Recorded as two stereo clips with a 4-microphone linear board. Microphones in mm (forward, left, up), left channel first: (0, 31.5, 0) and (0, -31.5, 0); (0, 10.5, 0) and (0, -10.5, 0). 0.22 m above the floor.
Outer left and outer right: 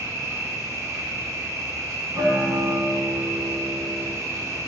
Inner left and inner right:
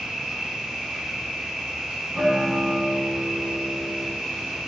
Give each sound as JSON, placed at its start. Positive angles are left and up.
{"t": 0.0, "sound": "an insect", "side_deg": -55, "distance_m": 0.8}
{"t": 2.1, "sound": "a guitar", "side_deg": -50, "distance_m": 0.7}